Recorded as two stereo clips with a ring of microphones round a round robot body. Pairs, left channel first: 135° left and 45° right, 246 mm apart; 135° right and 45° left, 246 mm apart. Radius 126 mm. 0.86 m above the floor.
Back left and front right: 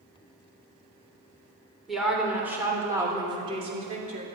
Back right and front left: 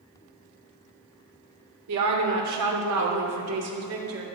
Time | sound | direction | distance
1.9 | a woman speaking | 45° left | 3 m